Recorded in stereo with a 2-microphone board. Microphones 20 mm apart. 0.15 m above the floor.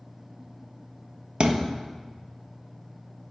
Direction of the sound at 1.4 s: 45° right (ahead or behind).